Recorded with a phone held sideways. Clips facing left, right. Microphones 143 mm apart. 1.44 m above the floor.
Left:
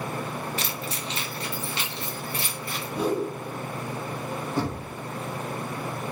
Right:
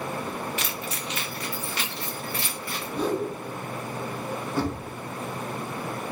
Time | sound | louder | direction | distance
0.6 | keys jangling | even | 35° left (ahead or behind) | 0.5 m
3.0 | a whoosh | left 1 dB | 10° left (ahead or behind) | 1.1 m
4.6 | knocking | right 1 dB | 15° left (ahead or behind) | 0.9 m